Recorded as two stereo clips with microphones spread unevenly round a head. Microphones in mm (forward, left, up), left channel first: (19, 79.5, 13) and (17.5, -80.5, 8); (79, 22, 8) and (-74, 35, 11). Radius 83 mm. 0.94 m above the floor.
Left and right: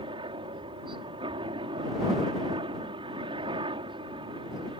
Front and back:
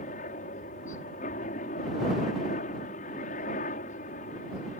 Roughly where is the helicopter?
Ahead right.